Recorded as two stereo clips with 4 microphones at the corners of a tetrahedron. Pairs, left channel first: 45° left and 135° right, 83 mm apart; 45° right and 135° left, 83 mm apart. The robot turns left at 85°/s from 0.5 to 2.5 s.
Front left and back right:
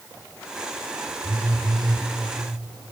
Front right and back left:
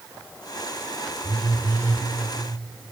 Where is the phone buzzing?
65° right, 3.5 m; by 2.1 s 135° right, 3.5 m.